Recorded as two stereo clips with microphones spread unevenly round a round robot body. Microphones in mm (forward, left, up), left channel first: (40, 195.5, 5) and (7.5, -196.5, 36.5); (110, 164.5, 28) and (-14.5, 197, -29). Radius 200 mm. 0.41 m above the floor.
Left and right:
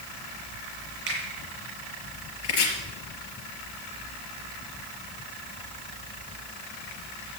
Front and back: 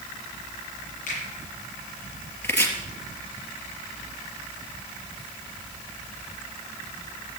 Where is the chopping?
55° left, 4.5 m.